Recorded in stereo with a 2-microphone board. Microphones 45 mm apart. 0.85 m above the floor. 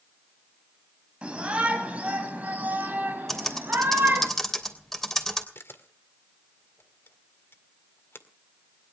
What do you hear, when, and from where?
1.2 s a shout: 20° right (ahead or behind), 5 m; by 4.3 s 45° right (ahead or behind), 5.5 m
3.3 s typing on a keyboard: 5° left (ahead or behind), 3 m
5.5 s a camera shutter: 55° left (ahead or behind), 1.9 m